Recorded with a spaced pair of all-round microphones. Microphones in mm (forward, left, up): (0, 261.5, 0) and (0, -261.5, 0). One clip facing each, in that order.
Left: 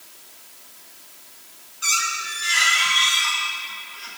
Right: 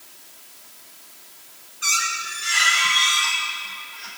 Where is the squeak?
65° right (ahead or behind), 6.5 m.